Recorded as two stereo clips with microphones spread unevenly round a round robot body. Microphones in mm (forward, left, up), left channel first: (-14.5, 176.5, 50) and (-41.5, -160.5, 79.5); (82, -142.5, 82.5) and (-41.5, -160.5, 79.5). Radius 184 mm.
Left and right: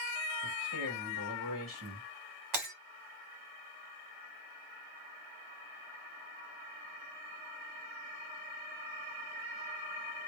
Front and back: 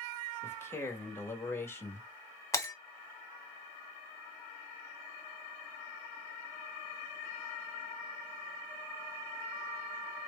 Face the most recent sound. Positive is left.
turn(degrees=-60)